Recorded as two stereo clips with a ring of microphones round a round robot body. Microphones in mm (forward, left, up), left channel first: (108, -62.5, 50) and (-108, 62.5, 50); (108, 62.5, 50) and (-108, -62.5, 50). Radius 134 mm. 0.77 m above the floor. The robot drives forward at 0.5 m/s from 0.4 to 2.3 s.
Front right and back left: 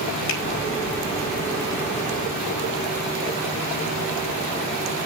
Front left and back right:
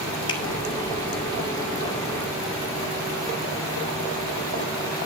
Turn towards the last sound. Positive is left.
turn(degrees=-50)